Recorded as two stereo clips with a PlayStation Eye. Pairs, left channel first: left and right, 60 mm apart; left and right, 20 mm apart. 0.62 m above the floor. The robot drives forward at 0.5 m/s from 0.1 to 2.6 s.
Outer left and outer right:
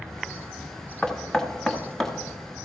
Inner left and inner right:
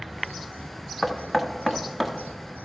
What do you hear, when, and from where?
1.0 s knocking: 10° left (ahead or behind), 0.9 m